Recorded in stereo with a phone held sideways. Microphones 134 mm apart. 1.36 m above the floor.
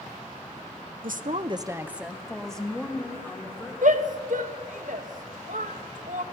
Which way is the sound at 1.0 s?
80° right.